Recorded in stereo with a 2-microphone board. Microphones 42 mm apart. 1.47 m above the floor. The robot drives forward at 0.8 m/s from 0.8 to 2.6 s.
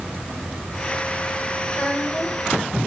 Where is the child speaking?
25° left (ahead or behind), 3.5 m.